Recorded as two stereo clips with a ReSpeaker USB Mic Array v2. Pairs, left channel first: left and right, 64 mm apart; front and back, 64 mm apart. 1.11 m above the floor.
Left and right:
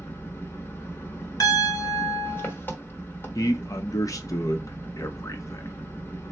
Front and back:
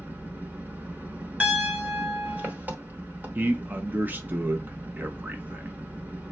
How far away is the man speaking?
About 0.7 m.